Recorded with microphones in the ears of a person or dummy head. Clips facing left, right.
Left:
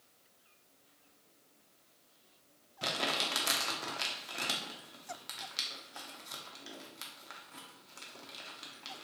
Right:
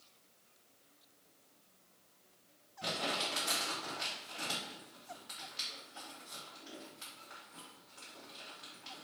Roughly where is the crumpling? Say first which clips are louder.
Left 1 dB; left.